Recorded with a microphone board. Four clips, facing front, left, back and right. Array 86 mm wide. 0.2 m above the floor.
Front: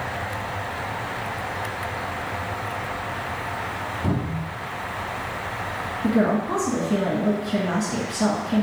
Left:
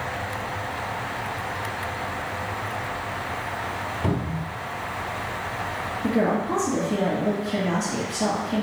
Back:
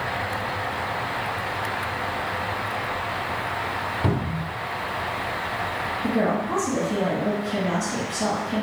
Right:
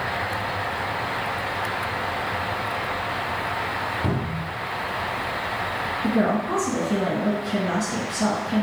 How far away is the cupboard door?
About 0.9 m.